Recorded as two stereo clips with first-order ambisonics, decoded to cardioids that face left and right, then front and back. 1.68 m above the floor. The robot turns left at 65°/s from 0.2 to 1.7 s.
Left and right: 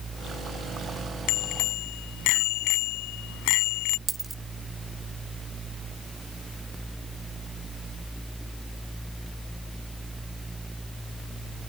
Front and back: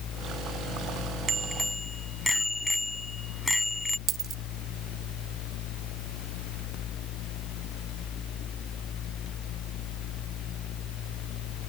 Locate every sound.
1.3 s a bicycle bell: 110° left; by 4.0 s 85° left
4.1 s a dropped coin: 165° right